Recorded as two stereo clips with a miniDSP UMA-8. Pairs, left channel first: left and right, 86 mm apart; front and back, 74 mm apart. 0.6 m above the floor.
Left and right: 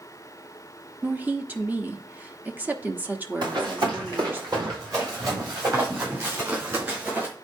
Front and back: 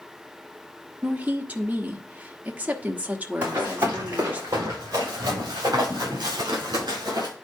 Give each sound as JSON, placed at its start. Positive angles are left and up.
{"t": 1.0, "sound": "a woman speaking", "azimuth_deg": -135, "distance_m": 1.0}
{"t": 3.4, "sound": "running footsteps", "azimuth_deg": -120, "distance_m": 5.0}